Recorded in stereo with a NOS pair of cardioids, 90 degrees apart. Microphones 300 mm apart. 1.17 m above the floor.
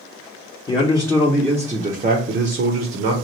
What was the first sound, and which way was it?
A man speaking, 20° left.